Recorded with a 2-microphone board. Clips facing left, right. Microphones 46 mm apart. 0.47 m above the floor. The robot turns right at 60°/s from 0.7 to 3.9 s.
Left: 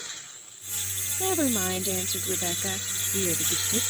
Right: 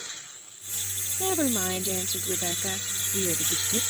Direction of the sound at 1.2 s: 5° left (ahead or behind).